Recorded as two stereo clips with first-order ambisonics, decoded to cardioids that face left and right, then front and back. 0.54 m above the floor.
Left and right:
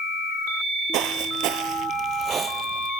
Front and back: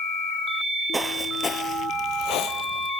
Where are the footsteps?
100° right, 0.9 m; by 2.9 s 15° right, 1.3 m.